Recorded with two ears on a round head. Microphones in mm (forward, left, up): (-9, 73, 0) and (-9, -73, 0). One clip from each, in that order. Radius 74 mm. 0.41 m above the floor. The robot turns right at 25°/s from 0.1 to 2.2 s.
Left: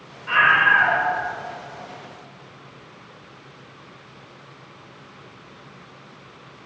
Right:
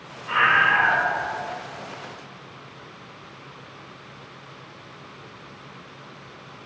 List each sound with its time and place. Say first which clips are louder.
0.3 s a scream: left 3 dB; 45° left (ahead or behind), 1.3 m; by 1.1 s 50° left (ahead or behind), 1.3 m